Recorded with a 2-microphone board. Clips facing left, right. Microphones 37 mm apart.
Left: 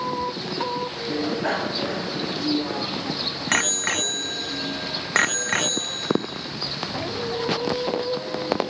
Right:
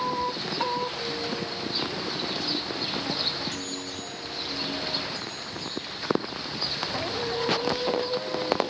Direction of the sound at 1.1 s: 65° left (ahead or behind).